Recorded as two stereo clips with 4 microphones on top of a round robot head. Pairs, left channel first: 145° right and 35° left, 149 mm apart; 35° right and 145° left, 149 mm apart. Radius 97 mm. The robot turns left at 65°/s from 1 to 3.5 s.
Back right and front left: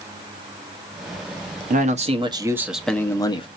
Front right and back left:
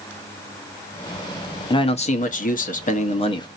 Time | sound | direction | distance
1.7 | a man speaking | 20° left | 1.0 m